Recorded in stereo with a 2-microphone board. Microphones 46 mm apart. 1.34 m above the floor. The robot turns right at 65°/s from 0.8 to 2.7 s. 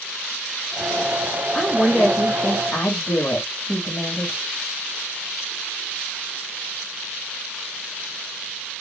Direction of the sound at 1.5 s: 5° left.